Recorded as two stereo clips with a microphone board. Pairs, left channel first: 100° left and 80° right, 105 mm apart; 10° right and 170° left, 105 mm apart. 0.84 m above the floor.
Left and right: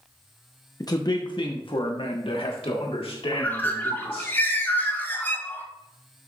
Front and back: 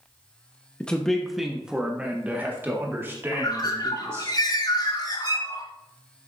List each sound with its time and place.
0.8 s a man speaking: 65° left, 0.9 m; by 4.3 s 110° left, 2.5 m
3.3 s a bird: 30° left, 1.5 m